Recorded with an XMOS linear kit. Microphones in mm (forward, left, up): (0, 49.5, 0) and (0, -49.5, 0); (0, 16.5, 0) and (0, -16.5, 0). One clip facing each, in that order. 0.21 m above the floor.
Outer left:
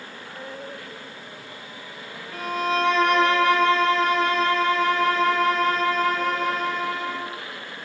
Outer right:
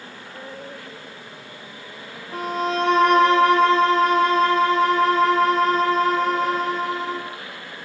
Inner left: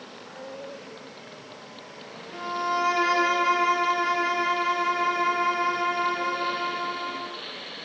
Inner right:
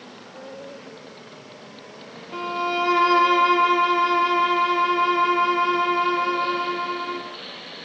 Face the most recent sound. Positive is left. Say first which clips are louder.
# outer right 1 dB, inner right 2 dB
turn(degrees=-35)  # may be behind; listen again after turning